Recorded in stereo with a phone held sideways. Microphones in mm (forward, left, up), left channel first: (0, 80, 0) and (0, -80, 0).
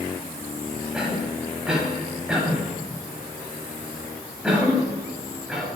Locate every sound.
0.9 s a cough: 5° right (ahead or behind), 6.5 m